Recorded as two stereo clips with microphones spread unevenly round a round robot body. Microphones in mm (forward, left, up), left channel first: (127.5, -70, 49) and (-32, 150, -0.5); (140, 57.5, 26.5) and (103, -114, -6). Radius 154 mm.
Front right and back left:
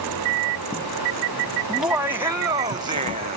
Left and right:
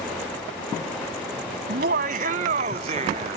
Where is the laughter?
150° right; by 3.4 s 170° right.